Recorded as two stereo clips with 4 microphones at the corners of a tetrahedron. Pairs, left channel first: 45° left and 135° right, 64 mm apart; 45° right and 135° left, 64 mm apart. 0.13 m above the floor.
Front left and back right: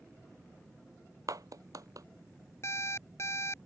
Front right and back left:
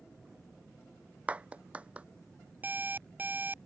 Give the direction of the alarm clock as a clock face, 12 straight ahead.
9 o'clock.